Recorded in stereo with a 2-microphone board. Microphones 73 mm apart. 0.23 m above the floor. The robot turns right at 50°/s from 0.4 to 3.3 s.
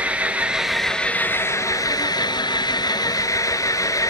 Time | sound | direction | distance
0.0 | an engine running | 15° right | 1.5 m